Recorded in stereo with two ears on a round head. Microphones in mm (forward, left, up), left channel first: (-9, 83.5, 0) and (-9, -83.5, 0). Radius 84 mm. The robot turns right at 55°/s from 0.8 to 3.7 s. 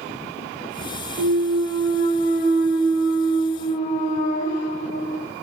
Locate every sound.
1.2 s a clunk: 95° right, 1.0 m; by 5.3 s 45° left, 1.0 m